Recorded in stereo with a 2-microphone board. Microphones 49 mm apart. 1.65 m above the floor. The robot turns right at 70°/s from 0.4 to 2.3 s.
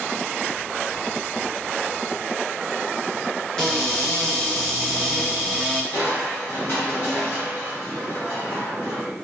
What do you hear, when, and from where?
3.6 s a cupboard door: 15° left (ahead or behind), 0.8 m
5.9 s crushing: 45° left (ahead or behind), 1.1 m